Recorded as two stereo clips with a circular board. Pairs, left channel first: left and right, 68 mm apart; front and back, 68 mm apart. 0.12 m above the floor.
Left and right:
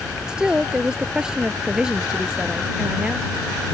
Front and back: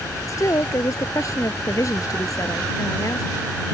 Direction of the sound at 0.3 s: 15° right.